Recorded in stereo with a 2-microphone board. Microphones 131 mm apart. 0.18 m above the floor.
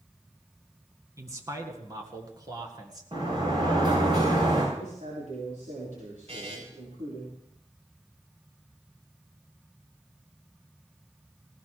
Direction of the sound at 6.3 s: 50° right (ahead or behind).